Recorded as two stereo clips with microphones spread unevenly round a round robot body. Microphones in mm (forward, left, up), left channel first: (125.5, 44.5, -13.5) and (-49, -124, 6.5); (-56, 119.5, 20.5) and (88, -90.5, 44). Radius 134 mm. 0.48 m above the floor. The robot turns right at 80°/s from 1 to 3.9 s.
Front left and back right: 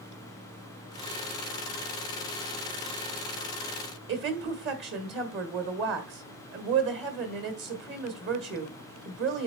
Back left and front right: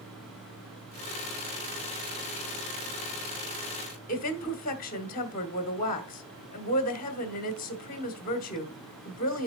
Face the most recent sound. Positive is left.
turn(degrees=175)